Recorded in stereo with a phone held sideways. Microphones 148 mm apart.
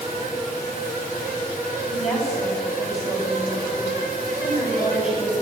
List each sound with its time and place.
0.0 s a fan: 80° left, 5 m
1.9 s a woman speaking: 50° left (ahead or behind), 10 m